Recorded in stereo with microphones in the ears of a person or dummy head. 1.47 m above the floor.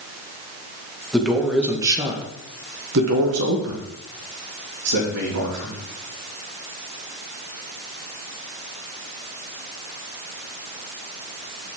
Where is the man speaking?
5° left (ahead or behind), 1.5 m; by 5.8 s 65° right (ahead or behind), 3 m.